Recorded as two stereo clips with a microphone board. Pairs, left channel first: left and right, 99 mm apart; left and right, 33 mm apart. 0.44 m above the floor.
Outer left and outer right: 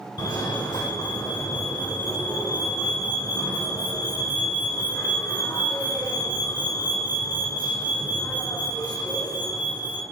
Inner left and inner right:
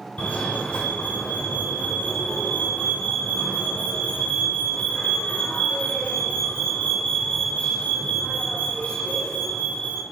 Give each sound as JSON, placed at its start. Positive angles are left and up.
{"t": 0.2, "sound": "a fire alarm", "side_deg": 45, "distance_m": 2.5}